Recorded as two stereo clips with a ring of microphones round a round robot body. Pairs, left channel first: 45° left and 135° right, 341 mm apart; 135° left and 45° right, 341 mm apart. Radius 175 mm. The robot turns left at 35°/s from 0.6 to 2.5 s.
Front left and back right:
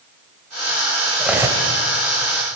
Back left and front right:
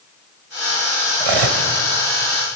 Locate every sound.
1.2 s cutlery clinking: 45° right, 2.5 m; by 1.6 s 60° right, 2.5 m